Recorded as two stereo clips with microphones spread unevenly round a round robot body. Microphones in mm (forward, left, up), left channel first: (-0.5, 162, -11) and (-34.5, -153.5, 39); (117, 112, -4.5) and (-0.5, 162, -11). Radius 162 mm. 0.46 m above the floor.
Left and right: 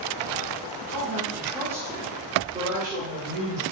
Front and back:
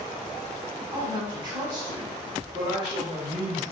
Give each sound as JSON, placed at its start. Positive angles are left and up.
{"t": 0.9, "sound": "a woman speaking", "azimuth_deg": 130, "distance_m": 1.0}